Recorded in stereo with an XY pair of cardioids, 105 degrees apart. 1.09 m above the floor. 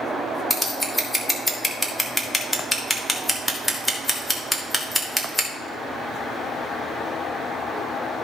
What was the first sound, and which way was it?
Scissors, 10° left.